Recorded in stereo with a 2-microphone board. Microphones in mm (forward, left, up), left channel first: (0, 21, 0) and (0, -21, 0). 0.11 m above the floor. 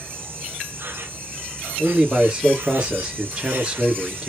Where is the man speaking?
20° right (ahead or behind), 2 m.